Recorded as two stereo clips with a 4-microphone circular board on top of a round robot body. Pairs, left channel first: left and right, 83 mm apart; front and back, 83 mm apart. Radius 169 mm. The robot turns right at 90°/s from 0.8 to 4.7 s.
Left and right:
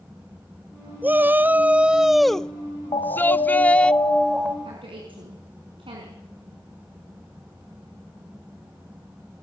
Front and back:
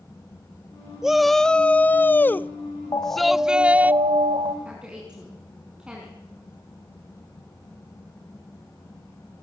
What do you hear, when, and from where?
1.0 s a shout: 105° right, 1.0 m; by 3.9 s 155° left, 1.0 m
2.9 s an alarm: 50° left, 3 m; by 4.5 s 160° right, 3 m
4.7 s a woman speaking: 105° right, 5 m; by 6.2 s 100° right, 5 m